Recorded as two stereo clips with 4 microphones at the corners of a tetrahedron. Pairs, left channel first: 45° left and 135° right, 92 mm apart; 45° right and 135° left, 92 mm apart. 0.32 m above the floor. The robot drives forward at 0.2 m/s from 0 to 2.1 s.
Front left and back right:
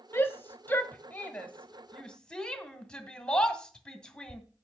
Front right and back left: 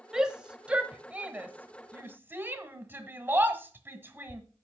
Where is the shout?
65° left, 1.0 m; by 4.4 s 115° left, 1.0 m.